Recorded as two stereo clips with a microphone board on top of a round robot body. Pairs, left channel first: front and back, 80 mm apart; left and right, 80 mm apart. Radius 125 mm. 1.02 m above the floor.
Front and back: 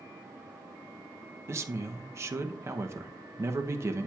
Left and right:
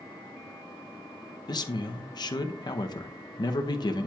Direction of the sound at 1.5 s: 125° left.